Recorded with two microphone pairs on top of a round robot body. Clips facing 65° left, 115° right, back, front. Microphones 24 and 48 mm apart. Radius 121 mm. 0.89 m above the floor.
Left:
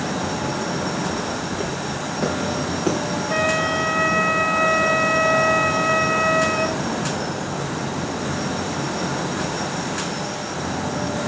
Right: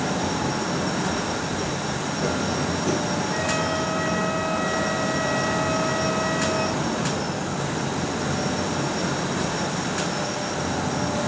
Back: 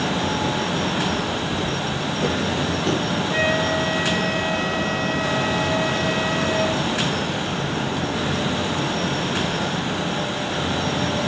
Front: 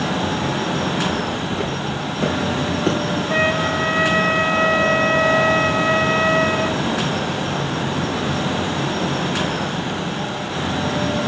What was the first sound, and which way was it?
Footsteps, 25° left.